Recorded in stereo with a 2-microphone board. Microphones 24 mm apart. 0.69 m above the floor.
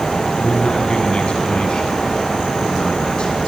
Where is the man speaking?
40° left (ahead or behind), 4.5 m; by 3.4 s 45° left (ahead or behind), 6.5 m.